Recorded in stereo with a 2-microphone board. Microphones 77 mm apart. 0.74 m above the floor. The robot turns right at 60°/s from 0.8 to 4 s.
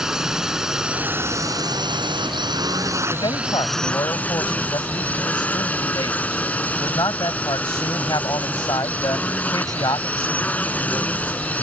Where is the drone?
170° right; by 11.6 s 20° left.